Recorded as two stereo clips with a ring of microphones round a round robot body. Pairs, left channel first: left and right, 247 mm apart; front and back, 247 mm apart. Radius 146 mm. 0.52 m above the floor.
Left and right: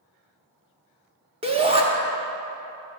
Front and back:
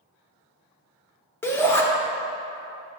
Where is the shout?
65° right, 0.8 m.